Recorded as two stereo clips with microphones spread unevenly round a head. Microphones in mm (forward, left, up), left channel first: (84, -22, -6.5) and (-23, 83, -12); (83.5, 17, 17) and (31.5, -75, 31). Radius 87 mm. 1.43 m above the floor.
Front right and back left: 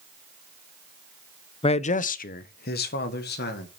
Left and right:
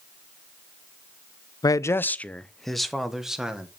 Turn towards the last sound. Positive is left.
turn(degrees=-35)